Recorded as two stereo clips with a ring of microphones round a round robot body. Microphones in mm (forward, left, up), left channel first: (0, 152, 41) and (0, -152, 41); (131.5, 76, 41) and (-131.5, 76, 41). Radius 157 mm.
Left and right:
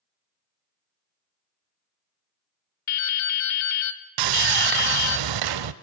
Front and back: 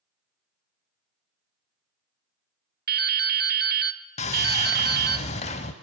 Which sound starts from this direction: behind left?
Dripping, at 2.9 s.